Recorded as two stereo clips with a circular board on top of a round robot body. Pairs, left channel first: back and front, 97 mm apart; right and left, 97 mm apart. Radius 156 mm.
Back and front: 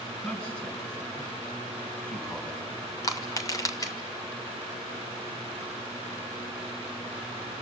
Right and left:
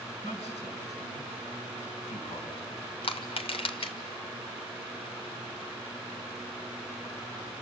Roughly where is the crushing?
Behind right.